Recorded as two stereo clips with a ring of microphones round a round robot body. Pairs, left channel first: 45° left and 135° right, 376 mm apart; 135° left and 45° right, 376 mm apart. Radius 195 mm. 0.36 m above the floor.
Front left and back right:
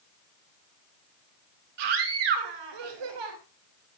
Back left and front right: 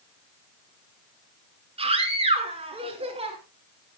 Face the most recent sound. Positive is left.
turn(degrees=-120)